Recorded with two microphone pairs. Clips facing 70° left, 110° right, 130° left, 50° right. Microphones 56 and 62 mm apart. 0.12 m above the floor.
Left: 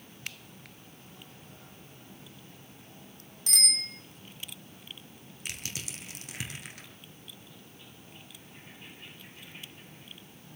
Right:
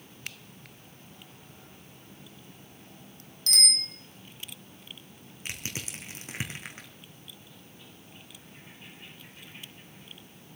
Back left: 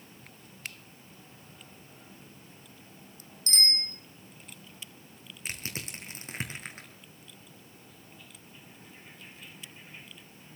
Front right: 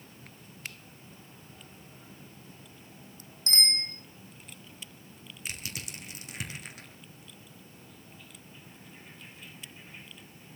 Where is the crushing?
170° right, 2 m.